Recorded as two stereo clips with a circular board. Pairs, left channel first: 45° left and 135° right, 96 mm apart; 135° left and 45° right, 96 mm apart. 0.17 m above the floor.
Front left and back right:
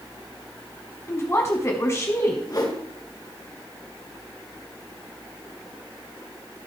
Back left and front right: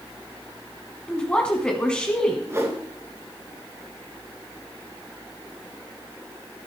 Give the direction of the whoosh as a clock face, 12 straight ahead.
12 o'clock.